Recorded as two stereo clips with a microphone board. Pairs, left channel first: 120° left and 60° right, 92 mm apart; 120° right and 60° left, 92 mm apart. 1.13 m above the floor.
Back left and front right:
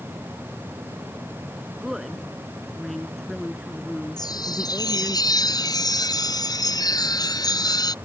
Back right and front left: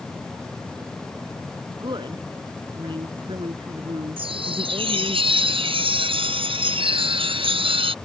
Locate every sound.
1.7 s a woman speaking: 25° left; by 5.2 s 35° left
4.2 s a chime: 75° left